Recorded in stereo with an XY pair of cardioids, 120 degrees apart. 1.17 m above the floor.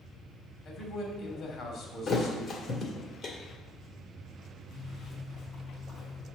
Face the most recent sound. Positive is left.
turn(degrees=55)